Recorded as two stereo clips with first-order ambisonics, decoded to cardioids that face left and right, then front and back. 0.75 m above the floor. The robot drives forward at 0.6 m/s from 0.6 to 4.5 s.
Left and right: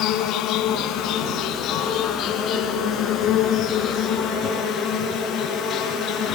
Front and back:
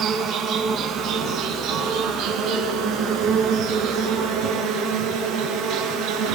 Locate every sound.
0.0 s an insect: 130° left, 3 m; by 6.4 s 150° left, 4.5 m